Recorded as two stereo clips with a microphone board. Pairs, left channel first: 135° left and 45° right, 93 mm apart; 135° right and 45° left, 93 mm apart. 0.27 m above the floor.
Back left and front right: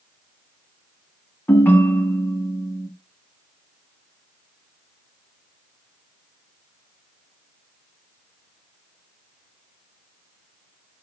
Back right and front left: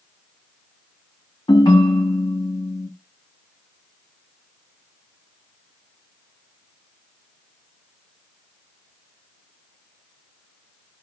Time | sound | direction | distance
1.5 | a ringtone | 160° right | 1.0 m